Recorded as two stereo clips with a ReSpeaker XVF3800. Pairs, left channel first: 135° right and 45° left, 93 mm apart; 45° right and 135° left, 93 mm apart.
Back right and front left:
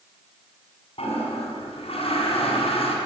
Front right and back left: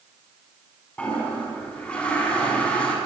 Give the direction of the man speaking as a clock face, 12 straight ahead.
No man speaking in this recording.